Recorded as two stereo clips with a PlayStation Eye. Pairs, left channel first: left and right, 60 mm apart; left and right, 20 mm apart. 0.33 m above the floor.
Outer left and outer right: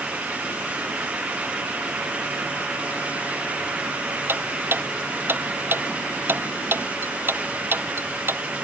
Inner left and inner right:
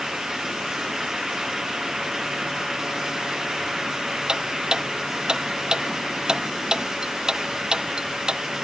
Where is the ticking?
40° right (ahead or behind).